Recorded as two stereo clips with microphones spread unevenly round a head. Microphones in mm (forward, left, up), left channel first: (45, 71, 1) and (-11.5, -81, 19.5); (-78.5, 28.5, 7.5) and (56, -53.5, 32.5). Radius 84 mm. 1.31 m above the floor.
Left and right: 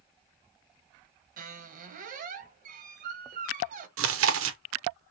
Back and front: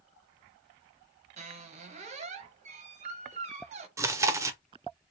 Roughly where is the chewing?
Right.